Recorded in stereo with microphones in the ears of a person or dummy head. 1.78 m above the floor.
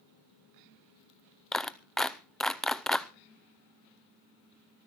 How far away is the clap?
About 0.6 m.